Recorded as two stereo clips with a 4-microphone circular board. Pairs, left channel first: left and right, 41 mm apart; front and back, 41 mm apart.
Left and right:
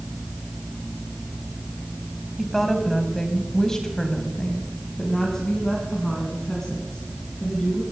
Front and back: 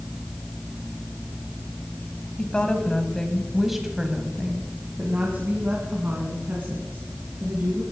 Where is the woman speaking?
10° left, 1.6 m; by 7.8 s 165° left, 3.5 m.